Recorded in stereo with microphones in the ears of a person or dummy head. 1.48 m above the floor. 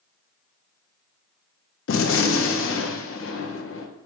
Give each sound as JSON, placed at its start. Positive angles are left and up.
{"t": 1.9, "sound": "a gunshot", "side_deg": 60, "distance_m": 0.7}